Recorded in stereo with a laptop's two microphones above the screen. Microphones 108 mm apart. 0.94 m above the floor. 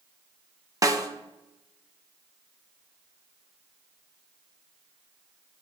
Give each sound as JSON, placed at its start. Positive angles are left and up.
{"t": 0.8, "sound": "a snare drum", "side_deg": -35, "distance_m": 0.8}